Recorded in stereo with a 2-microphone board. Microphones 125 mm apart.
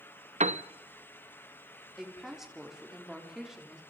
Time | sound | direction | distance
0.4 | a piano | 70° right (ahead or behind) | 0.5 m
2.0 | a woman speaking | 5° right (ahead or behind) | 3.5 m